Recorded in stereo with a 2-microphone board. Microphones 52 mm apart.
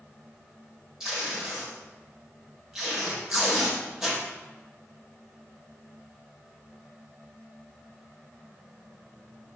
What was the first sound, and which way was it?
Tape being pulled, 10° right (ahead or behind).